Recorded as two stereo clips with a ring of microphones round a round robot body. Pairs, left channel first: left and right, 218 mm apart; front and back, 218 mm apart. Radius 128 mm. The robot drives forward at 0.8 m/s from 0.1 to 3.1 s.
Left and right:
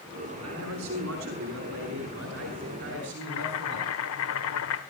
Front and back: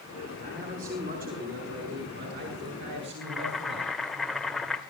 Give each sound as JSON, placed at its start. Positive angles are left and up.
{"t": 0.4, "sound": "a man speaking", "azimuth_deg": -120, "distance_m": 6.5}
{"t": 3.2, "sound": "boiling", "azimuth_deg": 90, "distance_m": 1.5}